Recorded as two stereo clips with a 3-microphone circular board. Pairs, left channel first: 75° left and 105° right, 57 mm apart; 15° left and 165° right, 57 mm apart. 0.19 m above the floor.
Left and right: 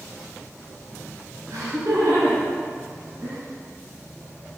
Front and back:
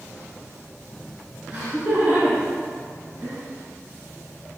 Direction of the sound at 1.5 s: 100° right.